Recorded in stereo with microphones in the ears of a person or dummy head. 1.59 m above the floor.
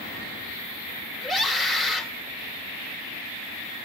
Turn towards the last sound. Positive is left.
turn(degrees=5)  # may be behind; listen again after turning